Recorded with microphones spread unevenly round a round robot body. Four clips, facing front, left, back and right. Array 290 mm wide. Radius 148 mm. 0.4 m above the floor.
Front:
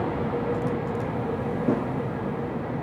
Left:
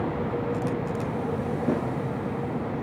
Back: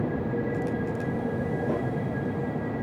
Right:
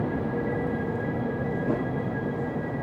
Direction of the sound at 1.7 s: 30° left.